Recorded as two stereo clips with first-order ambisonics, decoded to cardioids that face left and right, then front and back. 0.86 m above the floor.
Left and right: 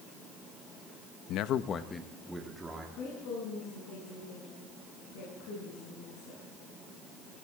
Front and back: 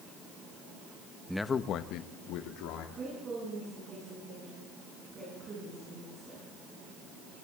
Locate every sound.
1.3 s a man speaking: 95° left, 0.7 m; by 2.9 s 10° right, 1.7 m
3.0 s a woman speaking: 115° left, 7 m